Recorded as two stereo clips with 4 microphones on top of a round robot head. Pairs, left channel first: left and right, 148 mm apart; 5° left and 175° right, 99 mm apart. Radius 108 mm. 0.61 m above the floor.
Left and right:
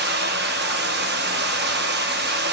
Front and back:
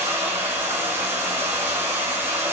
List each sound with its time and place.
0.0 s running water: 100° right, 0.9 m